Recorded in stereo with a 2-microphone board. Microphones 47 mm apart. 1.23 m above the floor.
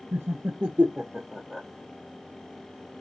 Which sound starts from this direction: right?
Laughter, at 0.1 s.